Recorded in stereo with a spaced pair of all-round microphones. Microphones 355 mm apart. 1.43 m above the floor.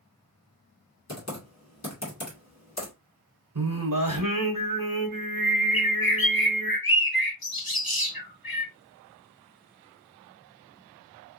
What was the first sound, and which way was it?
Typing on a keyboard, 50° left (ahead or behind).